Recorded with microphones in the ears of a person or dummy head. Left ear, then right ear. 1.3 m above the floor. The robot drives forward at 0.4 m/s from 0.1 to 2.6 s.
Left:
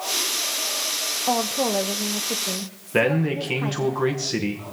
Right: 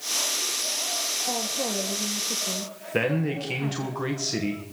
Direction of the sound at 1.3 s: 40° left (ahead or behind).